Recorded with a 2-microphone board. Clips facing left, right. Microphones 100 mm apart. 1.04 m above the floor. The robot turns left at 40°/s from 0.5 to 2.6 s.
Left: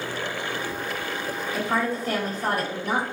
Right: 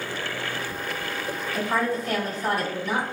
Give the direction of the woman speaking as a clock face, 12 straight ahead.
6 o'clock.